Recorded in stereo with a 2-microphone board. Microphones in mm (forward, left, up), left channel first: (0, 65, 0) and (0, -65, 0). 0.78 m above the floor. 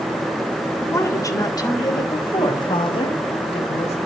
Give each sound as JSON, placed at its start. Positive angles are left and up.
{"t": 0.8, "sound": "a woman speaking", "side_deg": 20, "distance_m": 2.5}